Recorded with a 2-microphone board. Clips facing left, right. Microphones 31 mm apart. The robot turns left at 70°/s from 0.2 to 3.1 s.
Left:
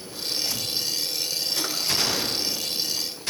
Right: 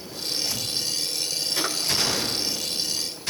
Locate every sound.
1.6 s a drawer: 20° right (ahead or behind), 1.2 m; by 1.8 s 10° right (ahead or behind), 1.2 m